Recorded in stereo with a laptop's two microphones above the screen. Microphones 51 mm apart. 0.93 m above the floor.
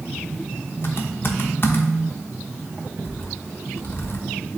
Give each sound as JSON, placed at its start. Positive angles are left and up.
{"t": 0.8, "sound": "typing on a keyboard", "side_deg": 50, "distance_m": 1.0}